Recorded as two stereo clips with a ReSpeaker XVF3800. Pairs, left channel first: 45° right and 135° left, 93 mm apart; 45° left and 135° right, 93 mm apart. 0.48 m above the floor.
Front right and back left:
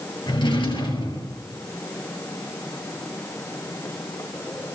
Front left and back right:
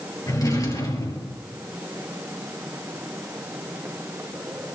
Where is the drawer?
10° right, 2.5 m.